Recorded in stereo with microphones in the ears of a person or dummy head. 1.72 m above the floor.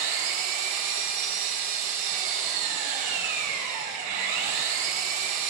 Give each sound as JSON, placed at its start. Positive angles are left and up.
{"t": 0.0, "sound": "an engine running", "side_deg": -45, "distance_m": 2.5}